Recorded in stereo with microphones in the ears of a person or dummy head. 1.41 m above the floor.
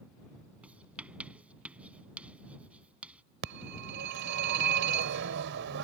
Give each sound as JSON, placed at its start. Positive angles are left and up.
{"t": 0.6, "sound": "writing", "side_deg": -5}
{"t": 3.4, "sound": "a phone ringing", "side_deg": -65}